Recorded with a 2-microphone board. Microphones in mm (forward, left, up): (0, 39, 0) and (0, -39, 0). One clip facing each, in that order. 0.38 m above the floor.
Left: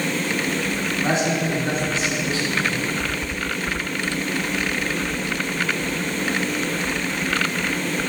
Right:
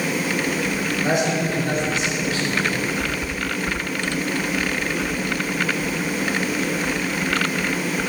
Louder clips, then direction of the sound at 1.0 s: Even; 25° left (ahead or behind).